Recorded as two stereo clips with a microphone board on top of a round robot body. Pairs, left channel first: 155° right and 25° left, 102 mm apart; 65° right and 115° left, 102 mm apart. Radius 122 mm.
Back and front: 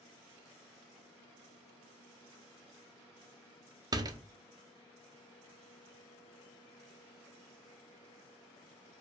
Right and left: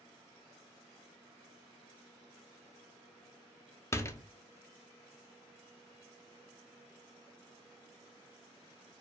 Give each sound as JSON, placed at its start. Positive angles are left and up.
{"t": 3.9, "sound": "a door slam", "azimuth_deg": -15, "distance_m": 0.5}